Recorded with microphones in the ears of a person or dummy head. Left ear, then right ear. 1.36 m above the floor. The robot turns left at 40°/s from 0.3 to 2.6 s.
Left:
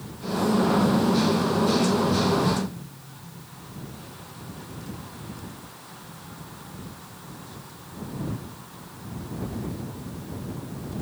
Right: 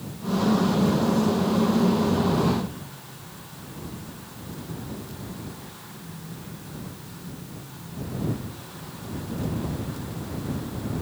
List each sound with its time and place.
Only background noise.